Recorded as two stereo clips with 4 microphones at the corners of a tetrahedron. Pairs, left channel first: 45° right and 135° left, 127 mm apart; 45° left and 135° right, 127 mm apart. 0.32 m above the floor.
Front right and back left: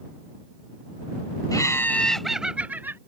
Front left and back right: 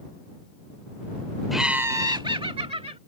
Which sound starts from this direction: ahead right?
Laughter, at 1.5 s.